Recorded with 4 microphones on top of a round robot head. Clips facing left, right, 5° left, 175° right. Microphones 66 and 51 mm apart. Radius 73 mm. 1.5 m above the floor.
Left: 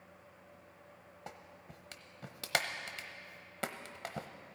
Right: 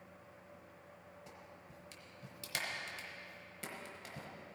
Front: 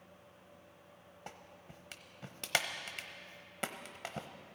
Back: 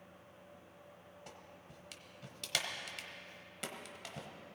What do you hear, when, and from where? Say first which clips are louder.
1.3 s a clap: left 4 dB, front 5 dB; 55° left, 0.9 m